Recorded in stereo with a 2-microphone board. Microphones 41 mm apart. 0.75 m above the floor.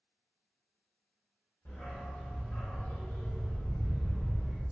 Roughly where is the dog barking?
Left.